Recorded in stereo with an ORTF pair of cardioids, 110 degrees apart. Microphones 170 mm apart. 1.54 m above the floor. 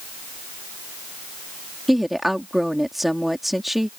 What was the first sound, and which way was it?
A woman speaking, straight ahead.